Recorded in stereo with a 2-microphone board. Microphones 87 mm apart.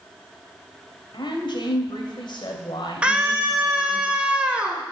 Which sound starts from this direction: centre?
A scream, at 3.0 s.